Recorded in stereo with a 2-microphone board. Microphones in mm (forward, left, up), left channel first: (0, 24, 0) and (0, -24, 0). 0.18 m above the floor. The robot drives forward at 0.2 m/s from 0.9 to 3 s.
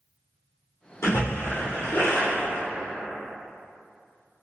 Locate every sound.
1.0 s a splash: 65° left (ahead or behind), 1.8 m; by 2.6 s 75° left (ahead or behind), 1.7 m